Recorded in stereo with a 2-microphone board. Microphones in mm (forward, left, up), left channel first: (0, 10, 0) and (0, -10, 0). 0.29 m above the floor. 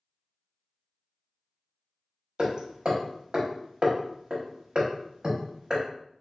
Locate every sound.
2.4 s hammering: 50° right (ahead or behind), 0.8 m